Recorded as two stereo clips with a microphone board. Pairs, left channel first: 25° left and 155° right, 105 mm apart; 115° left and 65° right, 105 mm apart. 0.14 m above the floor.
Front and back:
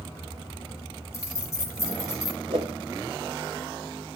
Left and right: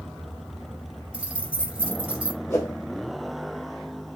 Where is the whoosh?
175° right, 1.1 m.